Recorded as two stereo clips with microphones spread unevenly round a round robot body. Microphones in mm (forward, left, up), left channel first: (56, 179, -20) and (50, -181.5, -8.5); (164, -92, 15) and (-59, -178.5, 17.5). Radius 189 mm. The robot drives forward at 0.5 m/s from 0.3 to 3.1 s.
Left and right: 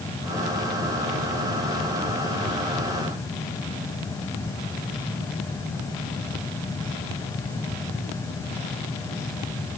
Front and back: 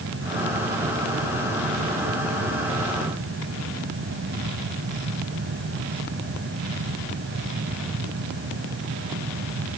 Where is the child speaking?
I don't hear a child speaking.